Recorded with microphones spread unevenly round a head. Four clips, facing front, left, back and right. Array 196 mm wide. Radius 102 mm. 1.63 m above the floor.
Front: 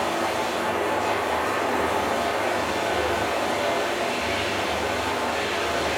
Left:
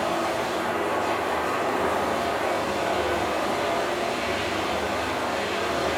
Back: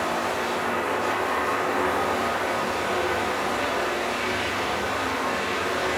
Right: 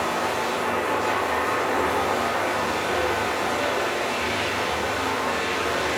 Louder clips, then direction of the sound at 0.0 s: Right 1 dB, front 1 dB; 50° right.